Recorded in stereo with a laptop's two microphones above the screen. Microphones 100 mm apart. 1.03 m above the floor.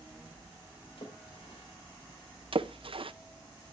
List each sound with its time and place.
1.0 s a splash: 70° left (ahead or behind), 2.5 m
2.5 s a splash: 65° right (ahead or behind), 0.5 m